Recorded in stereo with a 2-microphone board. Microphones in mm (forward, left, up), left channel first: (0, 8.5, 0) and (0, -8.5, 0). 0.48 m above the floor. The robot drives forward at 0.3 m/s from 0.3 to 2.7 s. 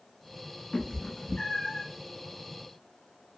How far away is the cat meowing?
About 0.6 m.